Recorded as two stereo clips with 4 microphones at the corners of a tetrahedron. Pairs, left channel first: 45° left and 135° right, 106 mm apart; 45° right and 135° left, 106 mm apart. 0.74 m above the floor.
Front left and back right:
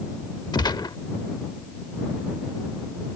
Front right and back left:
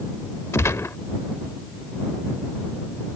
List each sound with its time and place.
0.5 s a gunshot: 15° left